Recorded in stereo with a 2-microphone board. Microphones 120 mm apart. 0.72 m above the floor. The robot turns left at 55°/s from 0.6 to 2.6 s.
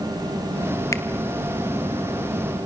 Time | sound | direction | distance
0.9 | a finger snap | 25° left (ahead or behind) | 1.4 m